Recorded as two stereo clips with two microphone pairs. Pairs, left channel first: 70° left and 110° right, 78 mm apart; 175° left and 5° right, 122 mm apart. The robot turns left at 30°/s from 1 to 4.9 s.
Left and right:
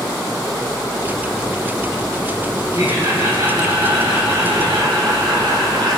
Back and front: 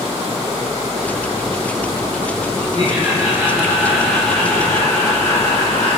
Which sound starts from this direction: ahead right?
Laughter, at 2.8 s.